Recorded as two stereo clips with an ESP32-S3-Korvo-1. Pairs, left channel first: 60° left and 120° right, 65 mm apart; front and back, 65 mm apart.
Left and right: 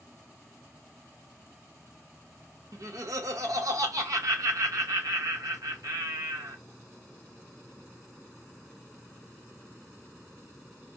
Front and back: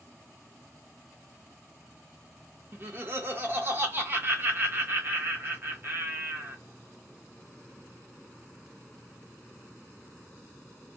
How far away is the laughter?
About 1.2 m.